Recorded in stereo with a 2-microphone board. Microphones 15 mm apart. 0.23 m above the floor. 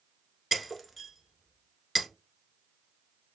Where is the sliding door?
No sliding door in this recording.